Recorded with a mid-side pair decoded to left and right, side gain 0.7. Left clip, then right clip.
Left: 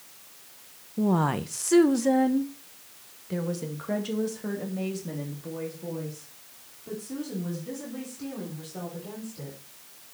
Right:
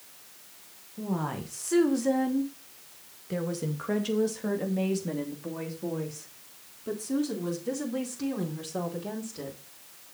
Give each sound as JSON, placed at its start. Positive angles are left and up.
{"t": 1.0, "sound": "a woman speaking", "azimuth_deg": 40, "distance_m": 1.2}